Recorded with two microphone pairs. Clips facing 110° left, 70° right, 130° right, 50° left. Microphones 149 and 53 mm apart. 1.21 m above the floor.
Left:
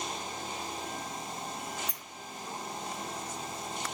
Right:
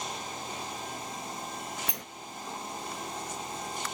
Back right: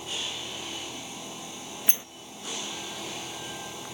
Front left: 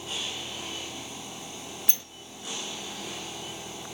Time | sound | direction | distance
1.9 | a sliding door | 60° right | ?